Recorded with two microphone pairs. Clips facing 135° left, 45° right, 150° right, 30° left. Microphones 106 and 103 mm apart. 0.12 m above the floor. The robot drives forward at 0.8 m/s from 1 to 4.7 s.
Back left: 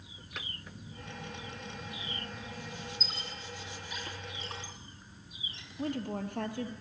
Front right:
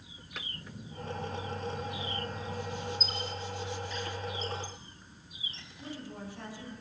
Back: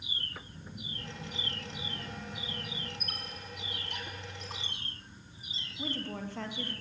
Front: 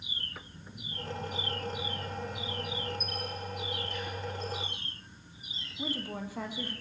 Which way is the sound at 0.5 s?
85° right.